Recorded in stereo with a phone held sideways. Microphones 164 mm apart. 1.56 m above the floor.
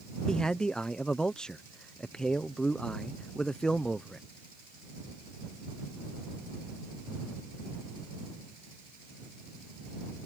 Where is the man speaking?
5° left (ahead or behind).